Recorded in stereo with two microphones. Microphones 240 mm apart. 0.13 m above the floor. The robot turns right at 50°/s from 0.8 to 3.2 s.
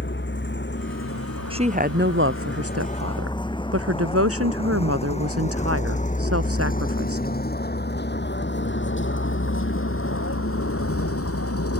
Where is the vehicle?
50° left (ahead or behind); by 11.8 s 75° left (ahead or behind).